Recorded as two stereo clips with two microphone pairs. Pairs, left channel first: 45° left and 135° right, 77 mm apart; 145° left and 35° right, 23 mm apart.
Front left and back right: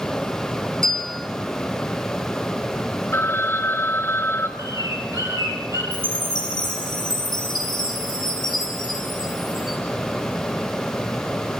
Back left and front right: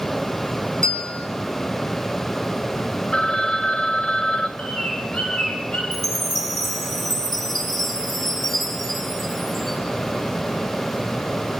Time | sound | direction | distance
0.8 | a bell | 125° left | 2.0 m
3.1 | a phone ringing | 95° left | 1.2 m
4.6 | a bird | 175° right | 4.5 m
5.9 | a chime | 70° left | 4 m